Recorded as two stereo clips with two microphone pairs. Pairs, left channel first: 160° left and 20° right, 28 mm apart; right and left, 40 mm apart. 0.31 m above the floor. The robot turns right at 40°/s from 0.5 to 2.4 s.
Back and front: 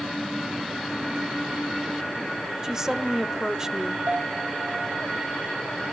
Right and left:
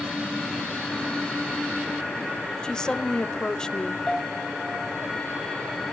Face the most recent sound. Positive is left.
turn(degrees=-15)